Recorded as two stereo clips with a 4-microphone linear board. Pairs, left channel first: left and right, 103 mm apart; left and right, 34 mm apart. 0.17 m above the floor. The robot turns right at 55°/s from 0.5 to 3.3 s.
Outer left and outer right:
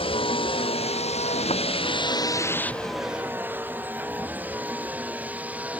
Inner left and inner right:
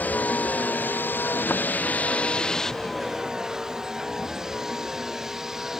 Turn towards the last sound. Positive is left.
turn(degrees=-15)  # may be behind; listen again after turning